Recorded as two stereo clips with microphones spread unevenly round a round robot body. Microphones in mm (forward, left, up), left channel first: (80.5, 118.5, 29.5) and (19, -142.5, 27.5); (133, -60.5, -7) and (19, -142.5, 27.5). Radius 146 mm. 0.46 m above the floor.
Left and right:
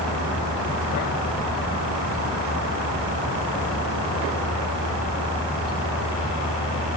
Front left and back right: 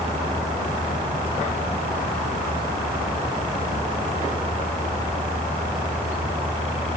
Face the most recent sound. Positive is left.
No sound to turn to.